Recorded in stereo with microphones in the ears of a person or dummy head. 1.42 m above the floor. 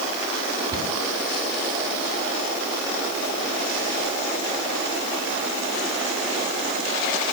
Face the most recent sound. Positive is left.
turn(degrees=-25)  # may be behind; listen again after turning